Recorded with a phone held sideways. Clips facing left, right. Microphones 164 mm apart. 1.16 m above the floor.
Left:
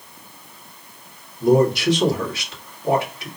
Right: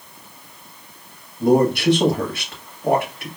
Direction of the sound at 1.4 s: 55° right (ahead or behind).